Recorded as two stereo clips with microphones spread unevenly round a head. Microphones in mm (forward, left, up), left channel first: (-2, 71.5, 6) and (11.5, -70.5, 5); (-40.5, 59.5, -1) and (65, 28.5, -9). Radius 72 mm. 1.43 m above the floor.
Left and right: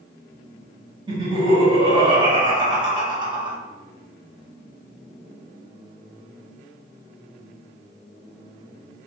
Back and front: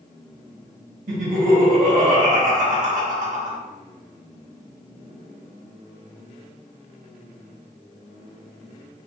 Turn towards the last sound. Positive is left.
turn(degrees=-25)